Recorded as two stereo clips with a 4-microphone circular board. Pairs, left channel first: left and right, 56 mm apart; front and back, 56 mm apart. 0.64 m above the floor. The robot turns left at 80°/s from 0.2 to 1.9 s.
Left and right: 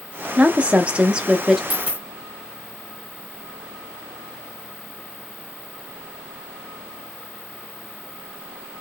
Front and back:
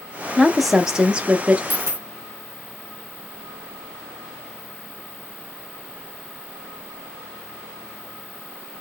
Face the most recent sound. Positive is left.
turn(degrees=-155)